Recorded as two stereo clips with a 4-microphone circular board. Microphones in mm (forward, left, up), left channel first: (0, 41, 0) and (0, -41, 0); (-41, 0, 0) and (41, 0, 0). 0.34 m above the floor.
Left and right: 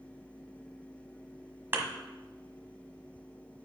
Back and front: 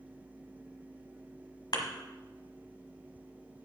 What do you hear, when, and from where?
1.7 s a thud: 150° right, 1.3 m